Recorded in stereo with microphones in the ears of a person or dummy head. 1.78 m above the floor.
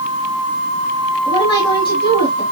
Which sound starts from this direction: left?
A woman speaking, at 1.2 s.